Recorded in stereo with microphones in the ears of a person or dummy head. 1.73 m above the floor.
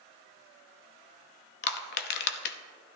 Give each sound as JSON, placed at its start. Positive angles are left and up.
{"t": 1.6, "sound": "crushing", "side_deg": 60, "distance_m": 0.6}